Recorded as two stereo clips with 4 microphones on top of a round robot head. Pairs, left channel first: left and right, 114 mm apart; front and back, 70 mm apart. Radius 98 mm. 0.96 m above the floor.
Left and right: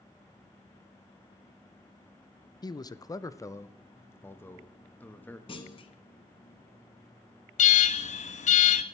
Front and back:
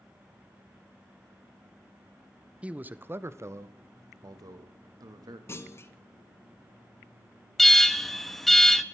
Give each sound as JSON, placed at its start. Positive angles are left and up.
{"t": 2.6, "sound": "a man speaking", "azimuth_deg": 115, "distance_m": 0.8}
{"t": 5.5, "sound": "a clunk", "azimuth_deg": 50, "distance_m": 1.5}
{"t": 7.6, "sound": "an alarm", "azimuth_deg": 85, "distance_m": 1.1}